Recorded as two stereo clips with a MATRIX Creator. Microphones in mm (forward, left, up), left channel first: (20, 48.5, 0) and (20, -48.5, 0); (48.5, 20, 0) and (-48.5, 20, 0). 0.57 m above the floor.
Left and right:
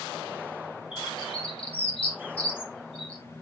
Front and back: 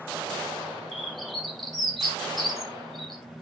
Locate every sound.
0.9 s a bird: 90° left, 3 m